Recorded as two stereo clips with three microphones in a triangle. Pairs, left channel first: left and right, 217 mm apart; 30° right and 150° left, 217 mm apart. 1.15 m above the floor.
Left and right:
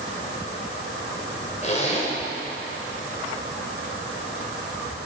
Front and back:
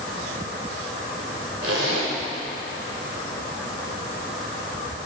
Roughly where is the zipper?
Behind left.